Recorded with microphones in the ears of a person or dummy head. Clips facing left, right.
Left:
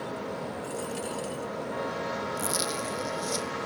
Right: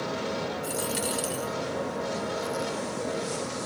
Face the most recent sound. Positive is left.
turn(degrees=70)  # may be behind; listen again after turning